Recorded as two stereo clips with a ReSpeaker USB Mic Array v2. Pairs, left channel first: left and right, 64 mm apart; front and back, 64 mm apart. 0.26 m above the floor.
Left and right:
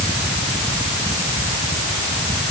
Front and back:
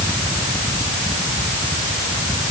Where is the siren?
I don't hear a siren.